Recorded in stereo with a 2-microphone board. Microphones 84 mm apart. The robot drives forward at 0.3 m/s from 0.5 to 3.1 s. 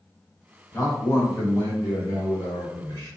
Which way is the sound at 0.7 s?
35° left (ahead or behind).